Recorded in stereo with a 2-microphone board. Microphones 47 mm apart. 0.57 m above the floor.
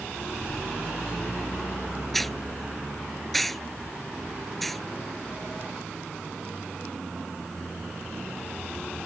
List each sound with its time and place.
2.1 s a hiss: 5° left (ahead or behind)